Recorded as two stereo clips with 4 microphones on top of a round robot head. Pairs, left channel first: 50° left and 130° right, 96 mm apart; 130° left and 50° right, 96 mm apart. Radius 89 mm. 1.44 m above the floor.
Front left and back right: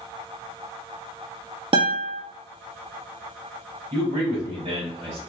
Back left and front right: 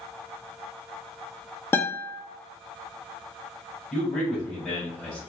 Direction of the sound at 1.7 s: 160° right.